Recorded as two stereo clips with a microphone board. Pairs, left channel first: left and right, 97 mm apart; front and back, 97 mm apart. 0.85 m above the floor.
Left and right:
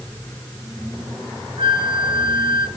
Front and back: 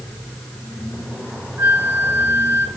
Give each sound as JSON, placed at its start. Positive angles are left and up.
{"t": 1.6, "sound": "a flute", "azimuth_deg": -110, "distance_m": 0.7}